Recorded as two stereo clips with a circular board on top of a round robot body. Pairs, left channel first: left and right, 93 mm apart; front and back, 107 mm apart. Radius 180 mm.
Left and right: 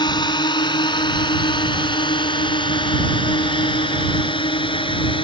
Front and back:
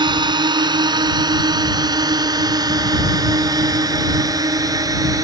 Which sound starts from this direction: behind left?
A drone, at 0.0 s.